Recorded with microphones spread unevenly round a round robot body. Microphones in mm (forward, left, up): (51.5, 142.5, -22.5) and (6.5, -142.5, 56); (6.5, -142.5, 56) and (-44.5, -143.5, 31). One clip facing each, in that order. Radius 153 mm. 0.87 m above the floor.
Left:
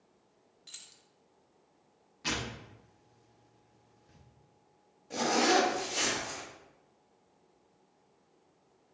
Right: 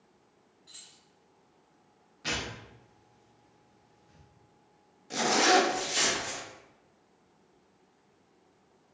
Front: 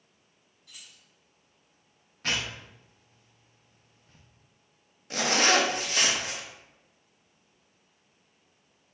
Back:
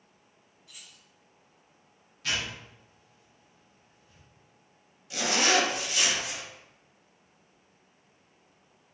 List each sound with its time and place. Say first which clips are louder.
0.7 s keys jangling: right 3 dB, front 1 dB; 50° left, 0.6 m
2.2 s tearing paper: even, front 1 dB; 5° right, 0.5 m
5.1 s a zipper: right 1 dB, front 2 dB; 50° right, 0.8 m